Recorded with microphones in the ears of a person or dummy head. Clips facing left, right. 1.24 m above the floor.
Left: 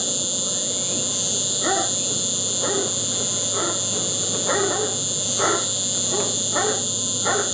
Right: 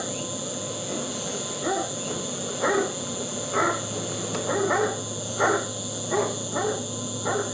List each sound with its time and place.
0.0 s an insect: 70° left (ahead or behind), 0.9 m